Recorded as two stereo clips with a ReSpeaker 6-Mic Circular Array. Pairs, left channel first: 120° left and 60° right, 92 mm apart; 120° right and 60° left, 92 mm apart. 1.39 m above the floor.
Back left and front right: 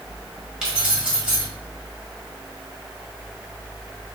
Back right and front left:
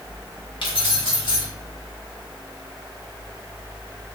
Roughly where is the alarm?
I don't hear an alarm.